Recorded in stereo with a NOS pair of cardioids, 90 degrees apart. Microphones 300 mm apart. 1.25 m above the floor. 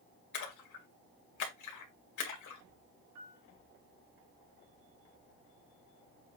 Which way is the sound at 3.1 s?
65° right.